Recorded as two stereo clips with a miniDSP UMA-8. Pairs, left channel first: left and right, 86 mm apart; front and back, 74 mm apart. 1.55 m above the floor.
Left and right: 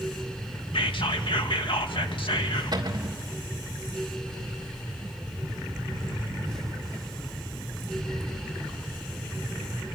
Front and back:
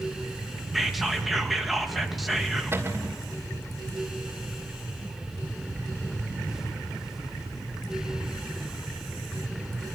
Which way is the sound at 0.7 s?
90° left.